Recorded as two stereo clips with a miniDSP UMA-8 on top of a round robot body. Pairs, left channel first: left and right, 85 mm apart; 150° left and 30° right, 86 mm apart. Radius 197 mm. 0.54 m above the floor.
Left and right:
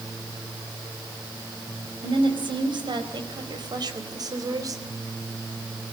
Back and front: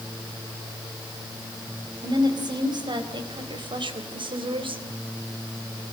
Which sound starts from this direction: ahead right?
A woman speaking, at 2.0 s.